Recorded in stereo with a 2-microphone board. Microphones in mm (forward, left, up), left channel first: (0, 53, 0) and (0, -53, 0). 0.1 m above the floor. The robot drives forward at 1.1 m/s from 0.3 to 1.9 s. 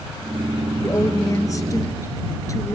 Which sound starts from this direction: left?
A woman speaking, at 0.8 s.